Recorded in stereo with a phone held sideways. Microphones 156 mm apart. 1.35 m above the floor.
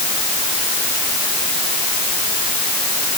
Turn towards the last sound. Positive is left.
No sound to turn to.